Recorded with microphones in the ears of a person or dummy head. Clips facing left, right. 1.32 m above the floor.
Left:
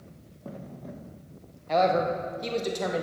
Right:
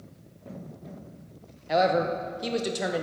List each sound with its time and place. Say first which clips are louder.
1.7 s a man speaking: even; 10° right (ahead or behind), 0.8 m